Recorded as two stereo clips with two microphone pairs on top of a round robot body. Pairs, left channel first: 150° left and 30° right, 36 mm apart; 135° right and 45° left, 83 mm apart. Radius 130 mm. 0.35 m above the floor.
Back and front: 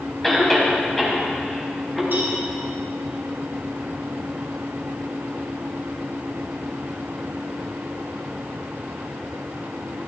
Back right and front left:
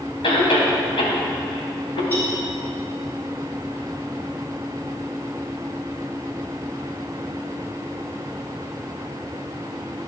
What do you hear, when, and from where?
0.2 s a cough: 130° right, 3.5 m
2.1 s a cowbell: 60° right, 4 m